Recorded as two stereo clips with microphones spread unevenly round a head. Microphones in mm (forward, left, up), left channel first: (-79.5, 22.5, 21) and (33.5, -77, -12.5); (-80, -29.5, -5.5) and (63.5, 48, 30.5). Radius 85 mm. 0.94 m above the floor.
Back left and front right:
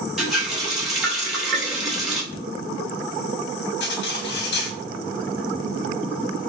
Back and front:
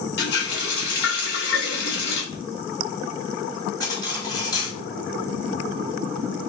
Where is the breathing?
135° left, 1.2 m.